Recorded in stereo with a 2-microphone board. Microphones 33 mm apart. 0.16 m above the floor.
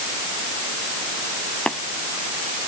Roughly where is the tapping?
Left.